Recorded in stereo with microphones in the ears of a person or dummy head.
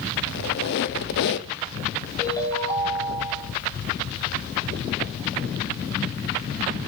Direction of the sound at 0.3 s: 55° left (ahead or behind).